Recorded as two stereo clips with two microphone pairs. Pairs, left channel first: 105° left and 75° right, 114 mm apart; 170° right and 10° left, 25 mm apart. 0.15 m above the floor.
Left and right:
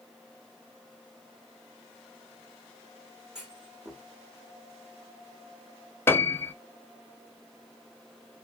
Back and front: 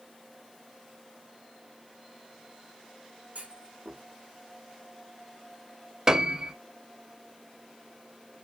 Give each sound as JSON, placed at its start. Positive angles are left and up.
{"t": 3.4, "sound": "a clunk", "azimuth_deg": 10, "distance_m": 3.0}
{"t": 6.1, "sound": "a piano", "azimuth_deg": 50, "distance_m": 0.8}